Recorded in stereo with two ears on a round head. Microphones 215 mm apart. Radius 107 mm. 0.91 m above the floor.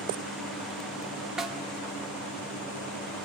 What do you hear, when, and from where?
1.4 s a snare drum: centre (ahead or behind), 1.2 m